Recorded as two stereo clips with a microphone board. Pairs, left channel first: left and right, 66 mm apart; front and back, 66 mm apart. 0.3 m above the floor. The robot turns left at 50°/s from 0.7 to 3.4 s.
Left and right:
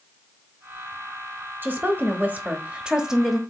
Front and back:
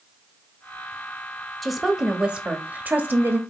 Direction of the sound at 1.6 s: 85° right.